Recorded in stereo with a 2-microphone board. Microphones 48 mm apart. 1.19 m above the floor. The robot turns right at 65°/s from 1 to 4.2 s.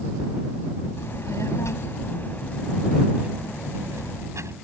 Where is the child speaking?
65° left; by 4.5 s 85° right.